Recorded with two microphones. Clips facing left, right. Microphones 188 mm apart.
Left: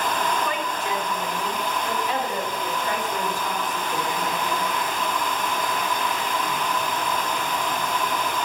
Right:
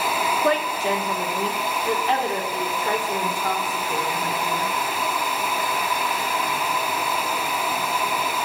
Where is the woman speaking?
85° right, 2.5 m; by 4.7 s 80° right, 5.5 m.